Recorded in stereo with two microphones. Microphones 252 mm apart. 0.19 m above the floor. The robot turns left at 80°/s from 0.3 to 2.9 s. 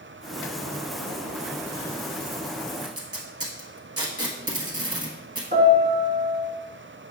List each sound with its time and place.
2.8 s tape being pulled: 65° right (ahead or behind), 0.9 m; by 5.4 s 60° right (ahead or behind), 0.9 m
5.5 s a piano: 45° right (ahead or behind), 0.8 m